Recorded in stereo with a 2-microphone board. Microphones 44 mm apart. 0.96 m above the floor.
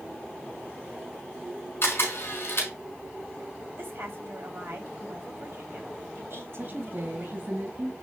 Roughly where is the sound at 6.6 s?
Right.